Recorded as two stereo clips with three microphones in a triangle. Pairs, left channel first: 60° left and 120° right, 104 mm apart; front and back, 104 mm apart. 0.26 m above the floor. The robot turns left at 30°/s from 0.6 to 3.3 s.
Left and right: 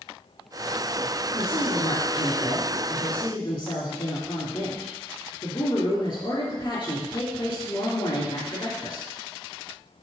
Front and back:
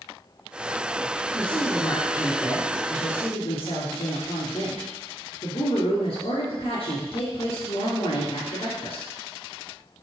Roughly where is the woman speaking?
Left.